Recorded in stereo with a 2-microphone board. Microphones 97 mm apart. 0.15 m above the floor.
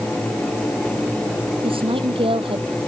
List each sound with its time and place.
1.6 s a woman speaking: 65° right (ahead or behind)